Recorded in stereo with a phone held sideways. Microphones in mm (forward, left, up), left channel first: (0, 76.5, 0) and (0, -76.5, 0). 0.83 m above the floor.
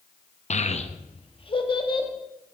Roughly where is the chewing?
I don't hear chewing.